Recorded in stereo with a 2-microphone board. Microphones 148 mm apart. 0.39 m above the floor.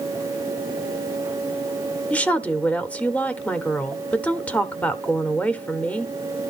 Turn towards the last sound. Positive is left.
turn(degrees=10)  # may be behind; listen again after turning